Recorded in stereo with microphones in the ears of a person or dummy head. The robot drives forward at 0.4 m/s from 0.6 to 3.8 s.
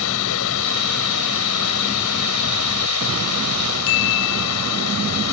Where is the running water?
80° left; by 5.3 s 85° left.